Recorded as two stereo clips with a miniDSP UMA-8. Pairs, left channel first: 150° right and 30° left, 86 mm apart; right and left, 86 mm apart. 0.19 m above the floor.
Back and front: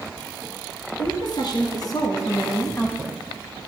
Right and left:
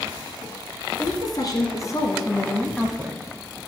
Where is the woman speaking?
125° right, 2.5 m; by 3.6 s 90° left, 1.2 m.